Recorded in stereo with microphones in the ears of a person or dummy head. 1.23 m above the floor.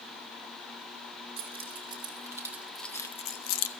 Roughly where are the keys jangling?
Right.